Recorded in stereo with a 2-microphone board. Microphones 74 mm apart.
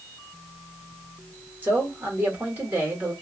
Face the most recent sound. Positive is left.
turn(degrees=-30)  # may be behind; listen again after turning